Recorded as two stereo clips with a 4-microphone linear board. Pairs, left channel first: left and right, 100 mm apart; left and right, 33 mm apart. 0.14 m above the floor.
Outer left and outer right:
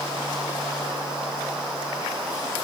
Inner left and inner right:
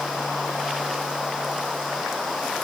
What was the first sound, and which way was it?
Only background noise.